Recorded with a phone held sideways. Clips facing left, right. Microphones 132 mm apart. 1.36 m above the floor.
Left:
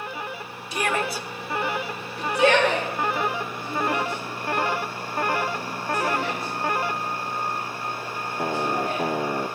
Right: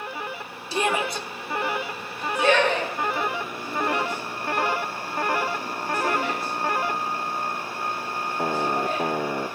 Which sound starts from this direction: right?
A shout, at 0.7 s.